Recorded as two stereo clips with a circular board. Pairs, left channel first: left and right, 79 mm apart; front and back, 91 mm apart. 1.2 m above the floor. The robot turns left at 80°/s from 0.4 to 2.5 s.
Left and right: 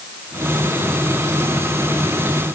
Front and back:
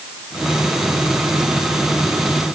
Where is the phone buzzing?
No phone buzzing in this recording.